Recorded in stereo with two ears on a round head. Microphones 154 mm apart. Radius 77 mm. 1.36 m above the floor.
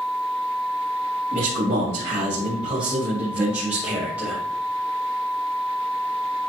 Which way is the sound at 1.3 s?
50° right (ahead or behind).